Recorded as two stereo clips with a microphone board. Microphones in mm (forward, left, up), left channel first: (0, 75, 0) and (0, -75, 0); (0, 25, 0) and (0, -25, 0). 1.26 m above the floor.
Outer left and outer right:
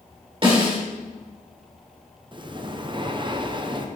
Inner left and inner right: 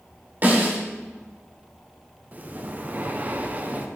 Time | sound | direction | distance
0.4 | a snare drum | 40° right (ahead or behind) | 2.5 m
2.3 | breathing | 30° right (ahead or behind) | 0.6 m